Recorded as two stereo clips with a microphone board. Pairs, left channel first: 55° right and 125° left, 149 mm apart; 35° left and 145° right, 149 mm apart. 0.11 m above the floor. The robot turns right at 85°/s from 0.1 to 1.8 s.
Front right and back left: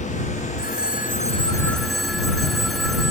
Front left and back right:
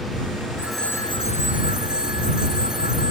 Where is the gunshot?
I don't hear a gunshot.